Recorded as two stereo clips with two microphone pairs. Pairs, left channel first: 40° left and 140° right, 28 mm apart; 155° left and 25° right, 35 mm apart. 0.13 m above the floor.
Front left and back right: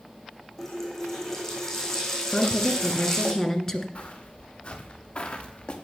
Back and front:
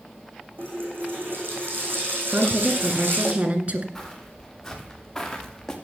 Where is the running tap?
35° right, 4 m.